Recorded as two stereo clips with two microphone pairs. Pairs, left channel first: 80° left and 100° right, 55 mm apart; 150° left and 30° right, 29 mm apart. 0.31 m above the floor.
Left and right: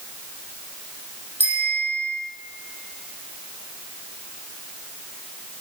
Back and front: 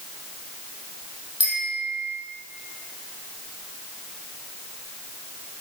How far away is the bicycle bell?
About 8 m.